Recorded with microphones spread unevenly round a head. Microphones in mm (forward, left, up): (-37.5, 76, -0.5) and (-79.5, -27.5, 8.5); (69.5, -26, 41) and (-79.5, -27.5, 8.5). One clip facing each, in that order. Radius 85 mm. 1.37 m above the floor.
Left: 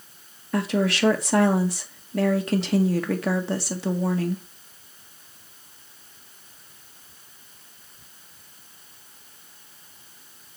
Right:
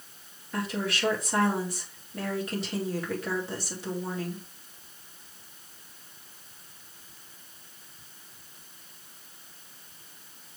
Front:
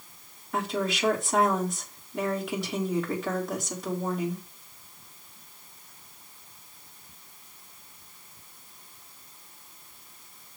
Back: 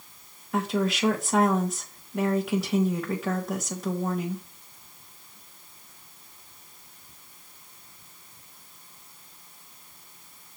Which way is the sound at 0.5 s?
90° left.